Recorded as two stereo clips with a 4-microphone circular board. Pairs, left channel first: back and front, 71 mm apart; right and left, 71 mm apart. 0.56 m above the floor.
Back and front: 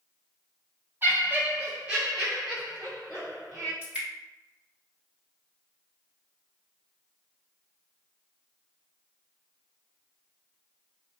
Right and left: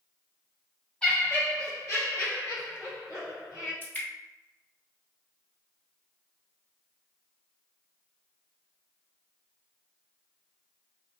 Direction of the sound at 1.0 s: 25° right.